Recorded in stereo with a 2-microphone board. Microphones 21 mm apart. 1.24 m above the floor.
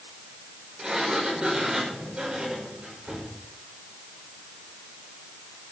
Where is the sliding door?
45° right (ahead or behind), 5.5 m.